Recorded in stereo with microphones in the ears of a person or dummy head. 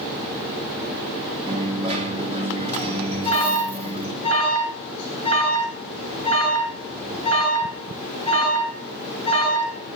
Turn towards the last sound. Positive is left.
turn(degrees=25)  # may be behind; listen again after turning